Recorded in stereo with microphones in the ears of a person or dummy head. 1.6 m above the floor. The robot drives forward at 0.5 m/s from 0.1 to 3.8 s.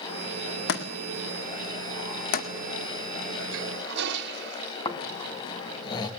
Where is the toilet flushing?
70° right (ahead or behind), 1.9 m.